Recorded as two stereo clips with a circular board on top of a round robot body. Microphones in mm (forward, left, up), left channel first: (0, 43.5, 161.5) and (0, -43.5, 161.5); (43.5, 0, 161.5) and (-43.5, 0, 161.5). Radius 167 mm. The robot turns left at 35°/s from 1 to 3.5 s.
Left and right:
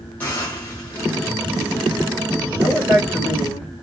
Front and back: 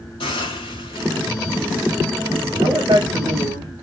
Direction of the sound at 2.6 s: 155° right.